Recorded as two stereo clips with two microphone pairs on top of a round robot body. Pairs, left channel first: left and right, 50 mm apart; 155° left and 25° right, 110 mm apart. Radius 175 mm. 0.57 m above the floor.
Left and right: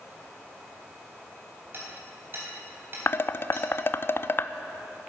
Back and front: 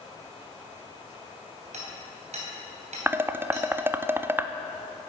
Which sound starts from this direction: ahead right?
Hammering, at 1.7 s.